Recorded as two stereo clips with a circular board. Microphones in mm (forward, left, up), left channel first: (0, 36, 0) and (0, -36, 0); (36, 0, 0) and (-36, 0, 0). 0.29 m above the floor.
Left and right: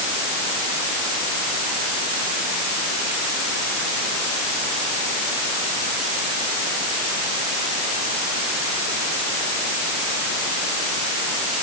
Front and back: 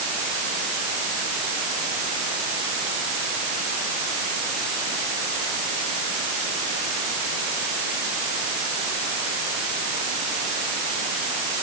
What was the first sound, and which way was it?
Only background noise.